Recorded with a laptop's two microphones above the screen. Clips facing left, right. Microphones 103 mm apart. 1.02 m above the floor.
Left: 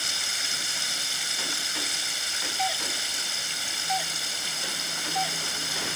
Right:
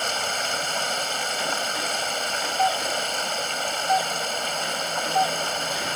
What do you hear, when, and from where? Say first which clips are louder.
0.0 s running water: right 10 dB; 55° right (ahead or behind)
2.6 s a doorbell: right 7 dB; 30° right (ahead or behind)